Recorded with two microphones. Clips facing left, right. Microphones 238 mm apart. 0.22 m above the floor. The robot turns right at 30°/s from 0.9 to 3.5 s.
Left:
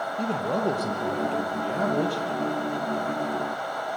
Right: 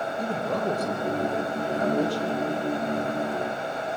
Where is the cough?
No cough in this recording.